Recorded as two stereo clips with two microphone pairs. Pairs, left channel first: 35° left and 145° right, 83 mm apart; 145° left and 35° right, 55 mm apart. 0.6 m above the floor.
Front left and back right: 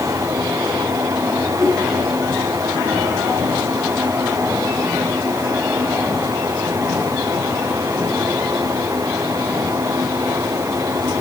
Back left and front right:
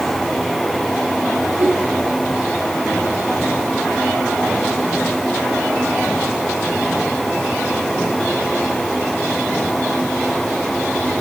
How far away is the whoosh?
About 6.5 m.